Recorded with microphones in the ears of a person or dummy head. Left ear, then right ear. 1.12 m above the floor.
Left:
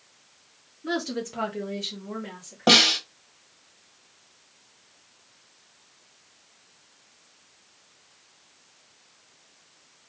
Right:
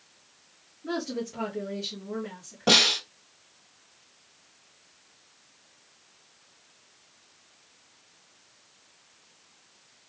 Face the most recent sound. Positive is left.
turn(degrees=35)  # may be behind; listen again after turning